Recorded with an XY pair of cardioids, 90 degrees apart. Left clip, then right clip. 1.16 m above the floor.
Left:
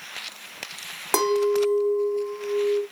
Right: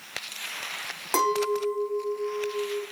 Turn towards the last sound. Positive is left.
turn(degrees=45)